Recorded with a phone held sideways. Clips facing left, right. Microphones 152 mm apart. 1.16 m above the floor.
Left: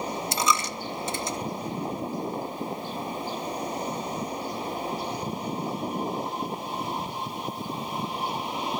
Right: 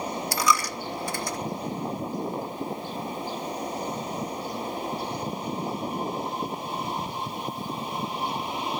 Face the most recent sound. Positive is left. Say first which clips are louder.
# right 2 dB
turn(degrees=25)  # may be behind; listen again after turning